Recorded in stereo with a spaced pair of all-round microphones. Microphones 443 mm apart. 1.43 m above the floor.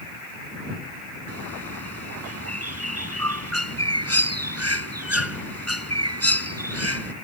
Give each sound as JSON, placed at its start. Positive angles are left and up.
{"t": 1.3, "sound": "a bird", "side_deg": -35}